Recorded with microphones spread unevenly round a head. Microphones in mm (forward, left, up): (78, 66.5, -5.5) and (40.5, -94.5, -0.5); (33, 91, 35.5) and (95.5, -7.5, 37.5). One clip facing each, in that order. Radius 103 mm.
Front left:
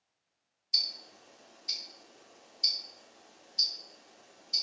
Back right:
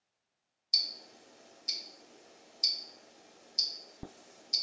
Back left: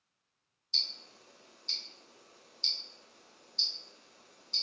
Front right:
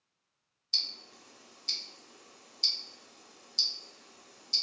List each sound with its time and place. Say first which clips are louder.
0.7 s ticking: back right 1 dB, front right 2 dB; 55° right, 1.0 m